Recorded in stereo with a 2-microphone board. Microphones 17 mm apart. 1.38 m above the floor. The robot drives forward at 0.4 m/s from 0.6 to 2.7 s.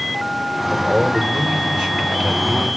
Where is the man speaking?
60° right (ahead or behind), 1.8 m; by 2.7 s 80° right, 1.5 m.